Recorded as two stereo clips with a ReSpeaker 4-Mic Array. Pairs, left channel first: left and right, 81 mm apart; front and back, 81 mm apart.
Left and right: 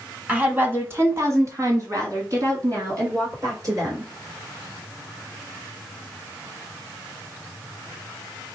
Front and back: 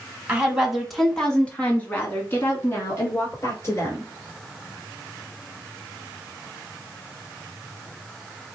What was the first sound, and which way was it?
A woman speaking, 130° right.